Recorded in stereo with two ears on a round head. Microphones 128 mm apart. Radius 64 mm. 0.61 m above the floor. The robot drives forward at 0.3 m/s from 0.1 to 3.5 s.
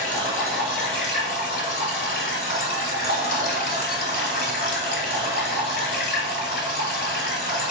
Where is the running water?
55° left (ahead or behind), 1.7 m; by 7.7 s 75° left (ahead or behind), 1.5 m.